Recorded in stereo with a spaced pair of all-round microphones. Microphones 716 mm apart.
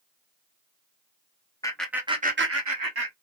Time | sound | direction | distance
1.6 | laughter | 5° left (ahead or behind) | 0.9 m